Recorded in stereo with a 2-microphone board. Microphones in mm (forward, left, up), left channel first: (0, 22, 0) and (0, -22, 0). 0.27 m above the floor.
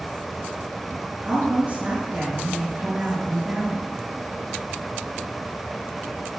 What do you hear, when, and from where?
1.2 s a woman speaking: 25° right (ahead or behind), 4 m